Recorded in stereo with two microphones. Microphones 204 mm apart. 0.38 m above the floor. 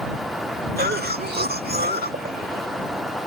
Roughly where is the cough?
Right.